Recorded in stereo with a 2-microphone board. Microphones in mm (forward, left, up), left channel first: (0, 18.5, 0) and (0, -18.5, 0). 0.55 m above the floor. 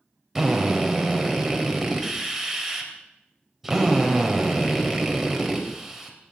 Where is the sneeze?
No sneeze in this recording.